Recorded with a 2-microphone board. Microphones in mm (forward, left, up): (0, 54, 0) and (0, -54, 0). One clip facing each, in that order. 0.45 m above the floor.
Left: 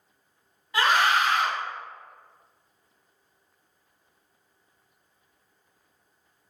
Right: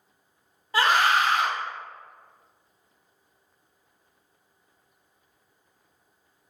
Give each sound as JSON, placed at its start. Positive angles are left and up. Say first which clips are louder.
{"t": 0.7, "sound": "a scream", "louder": "right 1 dB", "side_deg": -40, "distance_m": 1.1}